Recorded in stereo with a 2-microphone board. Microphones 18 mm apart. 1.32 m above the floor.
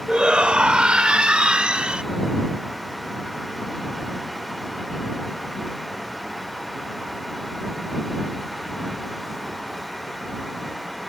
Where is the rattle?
No rattle in this recording.